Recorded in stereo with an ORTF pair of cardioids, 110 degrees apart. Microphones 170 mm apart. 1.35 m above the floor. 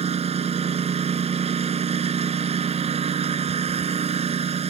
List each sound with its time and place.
0.0 s a lawn mower: 40° right